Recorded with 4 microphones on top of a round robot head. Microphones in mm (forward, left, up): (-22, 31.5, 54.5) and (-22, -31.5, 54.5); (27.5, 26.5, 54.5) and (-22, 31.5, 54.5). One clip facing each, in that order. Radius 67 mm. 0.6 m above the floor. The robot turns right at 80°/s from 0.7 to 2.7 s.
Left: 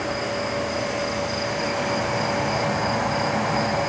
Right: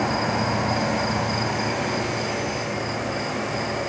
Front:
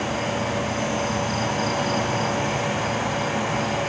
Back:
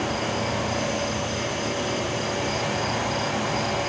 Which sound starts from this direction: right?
An insect, at 0.0 s.